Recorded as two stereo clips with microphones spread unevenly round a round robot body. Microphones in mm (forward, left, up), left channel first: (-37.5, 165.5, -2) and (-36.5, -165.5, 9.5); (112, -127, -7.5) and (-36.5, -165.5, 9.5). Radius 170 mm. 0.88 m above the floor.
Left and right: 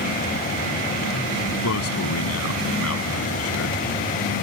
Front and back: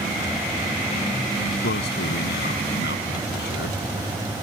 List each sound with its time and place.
1.6 s a man speaking: 40° left